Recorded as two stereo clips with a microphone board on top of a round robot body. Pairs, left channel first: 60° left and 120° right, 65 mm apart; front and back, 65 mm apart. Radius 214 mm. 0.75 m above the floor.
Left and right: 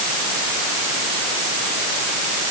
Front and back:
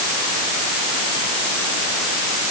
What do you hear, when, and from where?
Only background noise.